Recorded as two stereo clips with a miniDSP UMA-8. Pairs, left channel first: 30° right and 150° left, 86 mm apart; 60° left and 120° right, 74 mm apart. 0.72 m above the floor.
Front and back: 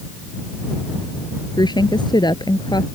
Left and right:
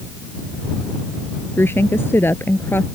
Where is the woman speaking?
Straight ahead.